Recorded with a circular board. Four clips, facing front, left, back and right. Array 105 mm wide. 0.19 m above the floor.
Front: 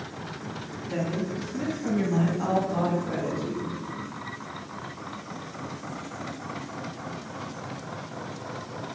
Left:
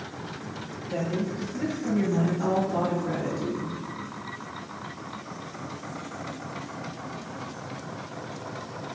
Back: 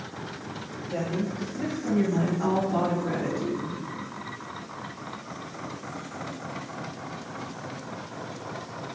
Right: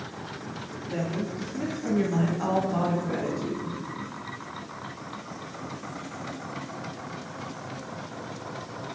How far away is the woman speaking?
About 2 m.